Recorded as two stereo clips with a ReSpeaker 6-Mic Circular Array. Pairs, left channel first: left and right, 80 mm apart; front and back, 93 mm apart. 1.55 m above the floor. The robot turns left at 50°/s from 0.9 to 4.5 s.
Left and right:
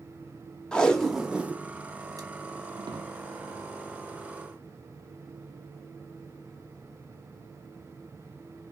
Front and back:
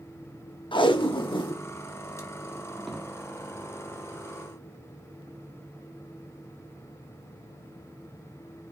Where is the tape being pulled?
10° left, 0.6 m; by 3.0 s 95° right, 0.6 m.